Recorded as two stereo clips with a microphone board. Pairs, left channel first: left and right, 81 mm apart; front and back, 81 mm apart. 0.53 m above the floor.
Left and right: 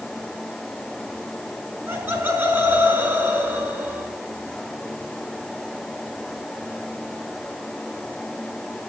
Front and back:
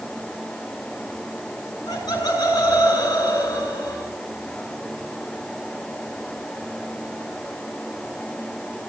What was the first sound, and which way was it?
Laughter, 30° right.